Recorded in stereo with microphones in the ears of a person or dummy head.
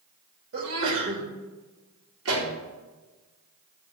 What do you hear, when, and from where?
0.5 s a sneeze: 80° right, 2.5 m
2.2 s a pop: 85° right, 2.5 m